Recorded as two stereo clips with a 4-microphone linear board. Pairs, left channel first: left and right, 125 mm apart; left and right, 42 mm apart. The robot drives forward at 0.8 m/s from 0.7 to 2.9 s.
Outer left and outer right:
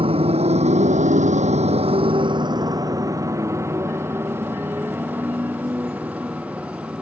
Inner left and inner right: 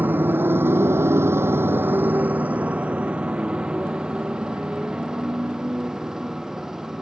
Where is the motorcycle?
50° right (ahead or behind); by 7.0 s 10° right (ahead or behind).